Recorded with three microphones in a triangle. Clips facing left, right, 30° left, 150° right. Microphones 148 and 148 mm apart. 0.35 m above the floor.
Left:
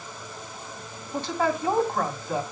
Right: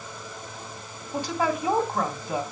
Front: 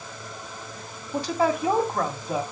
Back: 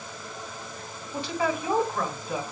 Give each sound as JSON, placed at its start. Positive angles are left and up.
{"t": 1.1, "sound": "a woman speaking", "azimuth_deg": -10, "distance_m": 2.5}